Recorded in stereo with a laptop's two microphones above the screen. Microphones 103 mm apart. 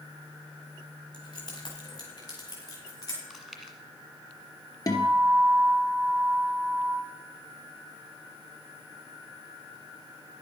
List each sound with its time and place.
1.1 s keys jangling: 45° left (ahead or behind), 4.5 m; by 3.2 s 35° left (ahead or behind), 5.5 m
3.3 s chewing: 5° right (ahead or behind), 1.6 m
4.9 s a guitar: 35° left (ahead or behind), 2.5 m